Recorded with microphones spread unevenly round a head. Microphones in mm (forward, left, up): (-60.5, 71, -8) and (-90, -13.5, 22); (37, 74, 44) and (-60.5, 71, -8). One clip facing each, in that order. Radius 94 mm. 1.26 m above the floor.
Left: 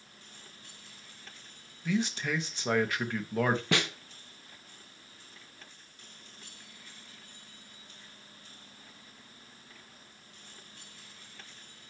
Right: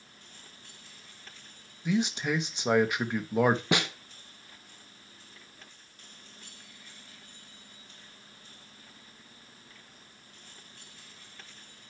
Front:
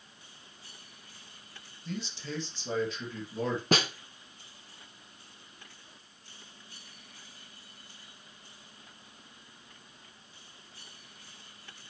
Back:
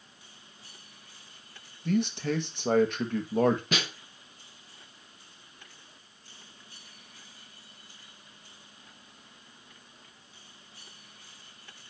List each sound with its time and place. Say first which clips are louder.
1.9 s a man speaking: right 3 dB, back 11 dB; 175° left, 1.4 m
3.7 s a snare drum: right 2 dB, front 5 dB; 40° right, 0.7 m